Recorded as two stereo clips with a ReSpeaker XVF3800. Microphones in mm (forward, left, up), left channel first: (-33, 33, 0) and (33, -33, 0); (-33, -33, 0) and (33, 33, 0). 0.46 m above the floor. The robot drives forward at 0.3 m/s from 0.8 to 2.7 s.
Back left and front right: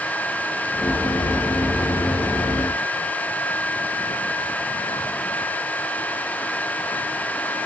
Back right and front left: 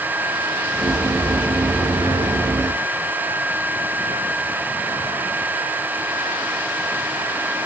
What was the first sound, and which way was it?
Only background noise.